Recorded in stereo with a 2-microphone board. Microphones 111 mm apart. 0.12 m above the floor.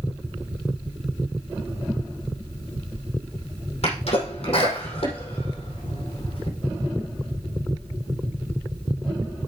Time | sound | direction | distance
3.8 | a sneeze | 65° left (ahead or behind) | 5.5 m